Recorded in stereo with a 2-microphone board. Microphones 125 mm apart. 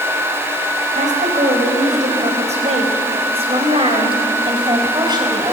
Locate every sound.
0.9 s a woman speaking: 80° right, 5 m; by 5.5 s 30° right (ahead or behind), 5 m